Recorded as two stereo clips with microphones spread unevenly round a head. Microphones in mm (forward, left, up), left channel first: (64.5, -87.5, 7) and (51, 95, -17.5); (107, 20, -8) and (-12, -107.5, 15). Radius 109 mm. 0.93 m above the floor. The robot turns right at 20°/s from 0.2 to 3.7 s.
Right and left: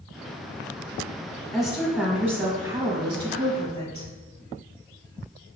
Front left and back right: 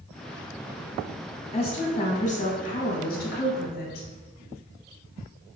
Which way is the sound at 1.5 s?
5° left.